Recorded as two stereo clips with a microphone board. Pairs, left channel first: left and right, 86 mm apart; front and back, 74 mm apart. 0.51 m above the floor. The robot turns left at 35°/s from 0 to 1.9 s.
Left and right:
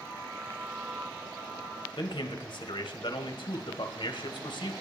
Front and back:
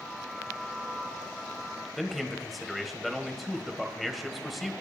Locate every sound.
2.0 s a man speaking: 90° left, 2 m